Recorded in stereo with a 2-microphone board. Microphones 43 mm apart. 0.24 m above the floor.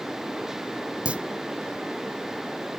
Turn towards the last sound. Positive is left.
turn(degrees=-30)  # may be behind; listen again after turning